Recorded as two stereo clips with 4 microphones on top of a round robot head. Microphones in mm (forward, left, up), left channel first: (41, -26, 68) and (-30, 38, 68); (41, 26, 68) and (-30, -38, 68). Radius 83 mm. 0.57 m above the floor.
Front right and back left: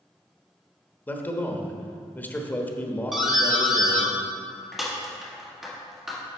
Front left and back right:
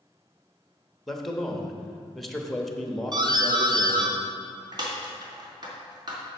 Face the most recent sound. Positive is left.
turn(degrees=-135)